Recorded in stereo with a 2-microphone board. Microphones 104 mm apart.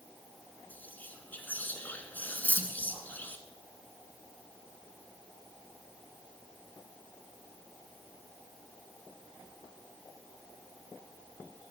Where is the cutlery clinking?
15° left (ahead or behind), 0.7 m.